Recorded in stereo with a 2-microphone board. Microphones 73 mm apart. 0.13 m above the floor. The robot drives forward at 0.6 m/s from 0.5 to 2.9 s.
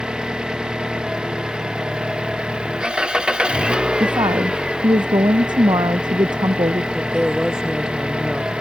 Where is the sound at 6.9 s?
10° right (ahead or behind).